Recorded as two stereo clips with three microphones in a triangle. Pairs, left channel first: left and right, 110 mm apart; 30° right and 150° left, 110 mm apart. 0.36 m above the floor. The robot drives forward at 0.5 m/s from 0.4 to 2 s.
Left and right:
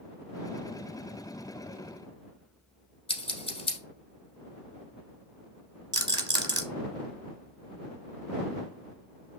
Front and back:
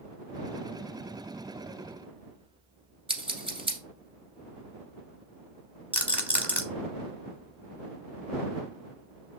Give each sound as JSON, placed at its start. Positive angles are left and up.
{"t": 3.1, "sound": "scissors", "azimuth_deg": 120, "distance_m": 1.2}
{"t": 5.9, "sound": "a rattle", "azimuth_deg": -135, "distance_m": 0.9}